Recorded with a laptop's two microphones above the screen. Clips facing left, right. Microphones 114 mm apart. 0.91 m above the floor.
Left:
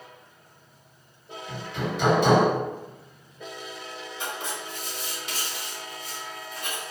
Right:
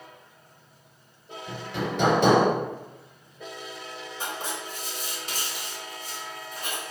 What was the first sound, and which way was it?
Hammering, 70° right (ahead or behind).